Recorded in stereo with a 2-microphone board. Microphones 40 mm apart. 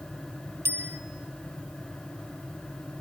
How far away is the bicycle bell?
About 8 m.